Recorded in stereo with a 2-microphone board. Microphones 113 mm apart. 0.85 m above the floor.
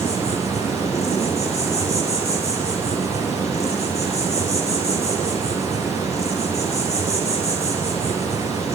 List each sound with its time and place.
0.0 s an insect: 70° left (ahead or behind), 8 m